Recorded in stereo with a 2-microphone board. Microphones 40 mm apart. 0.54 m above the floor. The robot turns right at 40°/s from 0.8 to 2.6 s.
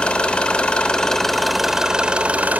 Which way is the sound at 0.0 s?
155° left.